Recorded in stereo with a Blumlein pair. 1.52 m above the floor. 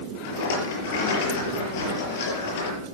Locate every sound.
0.2 s a rattle: 50° left, 5.5 m